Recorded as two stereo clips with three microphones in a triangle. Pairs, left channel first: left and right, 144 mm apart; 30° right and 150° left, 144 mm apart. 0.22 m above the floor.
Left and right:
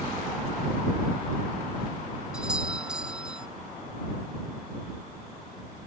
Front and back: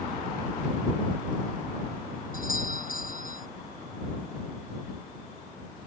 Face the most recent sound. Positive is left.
turn(degrees=-5)